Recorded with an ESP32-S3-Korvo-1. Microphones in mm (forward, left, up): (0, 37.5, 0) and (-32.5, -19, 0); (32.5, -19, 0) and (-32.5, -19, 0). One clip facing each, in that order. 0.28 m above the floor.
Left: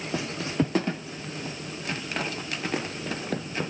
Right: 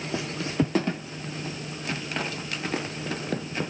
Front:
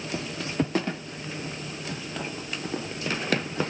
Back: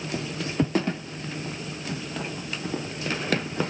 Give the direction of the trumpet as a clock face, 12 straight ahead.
No trumpet in this recording.